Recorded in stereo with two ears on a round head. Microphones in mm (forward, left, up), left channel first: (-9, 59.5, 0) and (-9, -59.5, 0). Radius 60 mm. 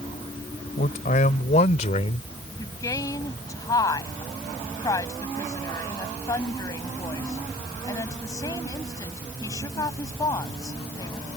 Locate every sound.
0.8 s a man speaking: 60° left (ahead or behind); by 2.3 s 50° left (ahead or behind)
2.6 s a woman speaking: 25° left (ahead or behind)